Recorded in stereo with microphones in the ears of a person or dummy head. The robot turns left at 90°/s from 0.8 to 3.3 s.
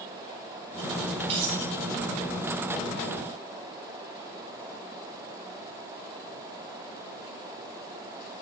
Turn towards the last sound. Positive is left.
turn(degrees=145)